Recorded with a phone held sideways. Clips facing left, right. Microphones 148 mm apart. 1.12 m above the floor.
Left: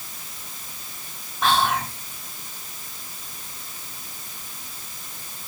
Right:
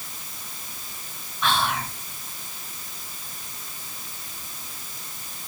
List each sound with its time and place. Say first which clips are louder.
1.4 s whispering: left 3 dB; 85° left, 2.5 m